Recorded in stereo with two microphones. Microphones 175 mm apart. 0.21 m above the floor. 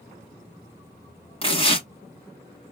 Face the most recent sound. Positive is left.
turn(degrees=30)  # may be behind; listen again after turning